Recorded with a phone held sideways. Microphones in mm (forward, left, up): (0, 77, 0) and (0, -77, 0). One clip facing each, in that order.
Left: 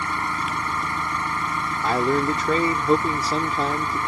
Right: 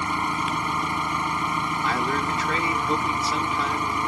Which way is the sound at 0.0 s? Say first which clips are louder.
Right 1 dB; 20° right (ahead or behind).